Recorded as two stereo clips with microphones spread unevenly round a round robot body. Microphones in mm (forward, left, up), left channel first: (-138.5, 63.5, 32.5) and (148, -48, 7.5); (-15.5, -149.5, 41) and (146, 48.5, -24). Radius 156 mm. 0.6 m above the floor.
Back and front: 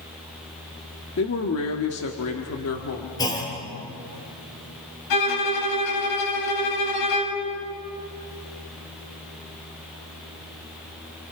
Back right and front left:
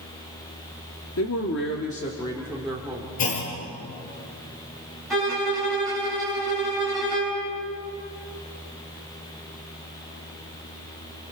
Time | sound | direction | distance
1.2 | a man speaking | 160° right | 1.5 m
3.2 | a clunk | 125° right | 5 m
5.1 | a violin | 140° left | 5 m